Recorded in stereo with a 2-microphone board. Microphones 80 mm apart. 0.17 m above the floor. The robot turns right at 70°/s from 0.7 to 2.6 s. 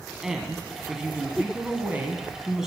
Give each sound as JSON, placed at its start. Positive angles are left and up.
{"t": 0.2, "sound": "a woman speaking", "side_deg": -5, "distance_m": 1.1}